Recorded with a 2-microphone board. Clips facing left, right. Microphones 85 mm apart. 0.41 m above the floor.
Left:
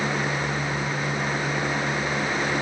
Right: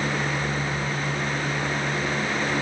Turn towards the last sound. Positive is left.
No sound to turn to.